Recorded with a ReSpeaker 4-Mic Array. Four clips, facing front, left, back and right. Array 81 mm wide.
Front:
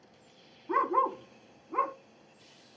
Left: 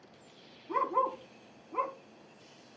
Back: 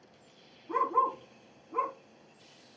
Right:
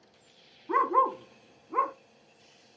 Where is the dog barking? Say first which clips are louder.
Right 5 dB, front 1 dB; 65° right, 1.4 m.